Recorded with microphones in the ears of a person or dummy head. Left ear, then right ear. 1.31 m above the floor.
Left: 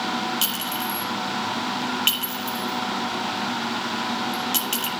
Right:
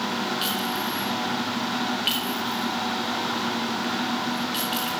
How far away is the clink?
About 2 m.